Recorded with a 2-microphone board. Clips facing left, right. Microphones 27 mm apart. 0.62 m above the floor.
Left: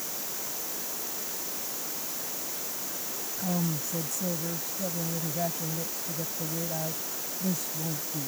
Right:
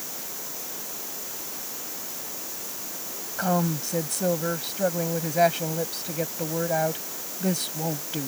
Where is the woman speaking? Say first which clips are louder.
Right 7 dB; 65° right (ahead or behind).